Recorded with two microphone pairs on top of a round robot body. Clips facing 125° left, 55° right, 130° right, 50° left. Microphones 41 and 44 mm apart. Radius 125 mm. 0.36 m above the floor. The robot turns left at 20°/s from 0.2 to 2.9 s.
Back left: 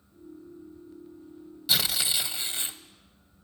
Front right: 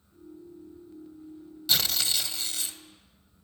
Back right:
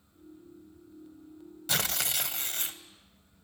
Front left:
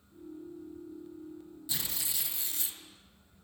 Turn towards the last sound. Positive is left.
turn(degrees=-175)